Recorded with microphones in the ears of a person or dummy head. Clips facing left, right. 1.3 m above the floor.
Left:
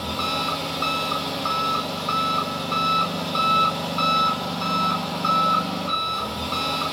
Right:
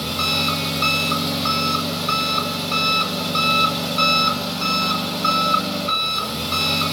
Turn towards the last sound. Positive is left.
turn(degrees=-25)  # may be behind; listen again after turning